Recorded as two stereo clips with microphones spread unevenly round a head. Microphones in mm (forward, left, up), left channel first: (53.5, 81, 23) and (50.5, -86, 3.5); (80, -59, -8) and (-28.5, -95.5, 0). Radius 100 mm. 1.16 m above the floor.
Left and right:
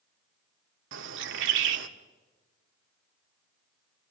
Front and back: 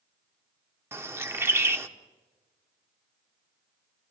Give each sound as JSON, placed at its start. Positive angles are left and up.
{"t": 0.9, "sound": "a bird", "azimuth_deg": -95, "distance_m": 1.4}